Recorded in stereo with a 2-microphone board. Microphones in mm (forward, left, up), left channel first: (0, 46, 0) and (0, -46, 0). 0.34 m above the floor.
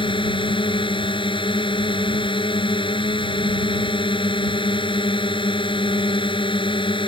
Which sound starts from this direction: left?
A drone, at 0.0 s.